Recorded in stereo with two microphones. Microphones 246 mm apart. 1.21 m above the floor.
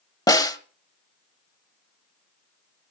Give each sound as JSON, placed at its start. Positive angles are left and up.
{"t": 0.3, "sound": "a snare drum", "side_deg": 15, "distance_m": 1.3}